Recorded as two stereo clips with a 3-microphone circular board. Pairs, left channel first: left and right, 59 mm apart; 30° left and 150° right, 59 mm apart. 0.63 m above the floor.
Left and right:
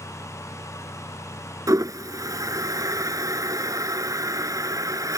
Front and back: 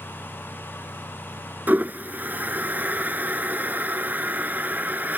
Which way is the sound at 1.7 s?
90° right.